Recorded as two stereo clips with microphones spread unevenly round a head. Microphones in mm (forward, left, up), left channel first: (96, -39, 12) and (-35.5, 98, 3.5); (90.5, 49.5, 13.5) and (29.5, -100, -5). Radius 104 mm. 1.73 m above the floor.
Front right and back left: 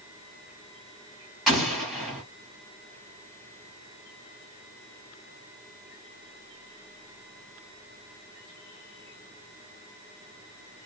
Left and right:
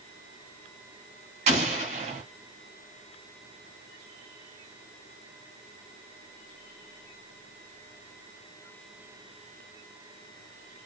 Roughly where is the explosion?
Behind right.